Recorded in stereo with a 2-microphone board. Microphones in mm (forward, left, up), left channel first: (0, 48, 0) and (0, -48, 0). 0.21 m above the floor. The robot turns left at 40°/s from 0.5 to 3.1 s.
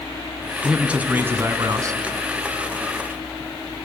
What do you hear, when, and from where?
0.6 s a man speaking: 10° right, 2.0 m; by 2.0 s 60° right, 2.0 m